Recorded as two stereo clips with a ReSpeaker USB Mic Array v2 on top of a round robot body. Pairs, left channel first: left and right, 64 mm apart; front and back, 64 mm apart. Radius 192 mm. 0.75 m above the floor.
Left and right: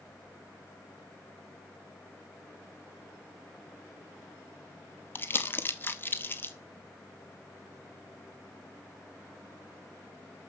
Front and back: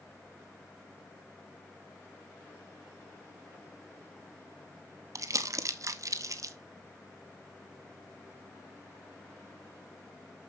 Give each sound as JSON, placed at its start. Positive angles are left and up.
{"t": 5.2, "sound": "crumpling", "azimuth_deg": 145, "distance_m": 1.3}